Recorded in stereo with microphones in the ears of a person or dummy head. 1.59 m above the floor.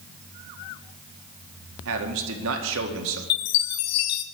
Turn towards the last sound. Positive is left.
turn(degrees=60)  # may be behind; listen again after turning